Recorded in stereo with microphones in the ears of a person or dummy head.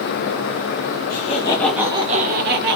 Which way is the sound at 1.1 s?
40° left (ahead or behind).